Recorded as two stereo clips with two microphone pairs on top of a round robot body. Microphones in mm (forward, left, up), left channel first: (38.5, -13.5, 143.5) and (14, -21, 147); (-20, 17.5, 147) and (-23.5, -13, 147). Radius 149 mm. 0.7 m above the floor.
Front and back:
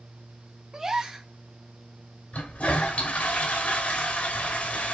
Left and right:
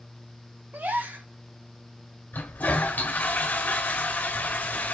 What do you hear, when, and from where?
0.7 s a gasp: 95° right, 2.5 m
2.3 s a toilet flushing: 55° left, 2 m